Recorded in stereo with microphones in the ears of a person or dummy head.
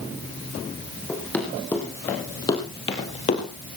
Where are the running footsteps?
5° left (ahead or behind), 5 m; by 3.5 s 45° left (ahead or behind), 3 m.